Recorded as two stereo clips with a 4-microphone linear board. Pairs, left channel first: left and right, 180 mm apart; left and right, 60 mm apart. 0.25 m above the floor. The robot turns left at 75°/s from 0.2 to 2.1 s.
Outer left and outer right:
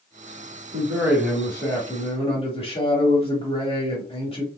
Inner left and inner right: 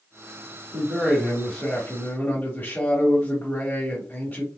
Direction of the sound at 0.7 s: 140° right.